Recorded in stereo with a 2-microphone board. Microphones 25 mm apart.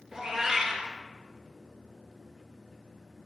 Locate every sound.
0.1 s a cat meowing: 20° right (ahead or behind), 1.4 m